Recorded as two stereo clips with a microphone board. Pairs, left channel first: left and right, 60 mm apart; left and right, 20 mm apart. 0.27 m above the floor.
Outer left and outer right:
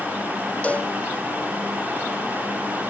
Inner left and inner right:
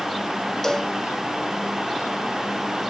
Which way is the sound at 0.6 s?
25° left (ahead or behind).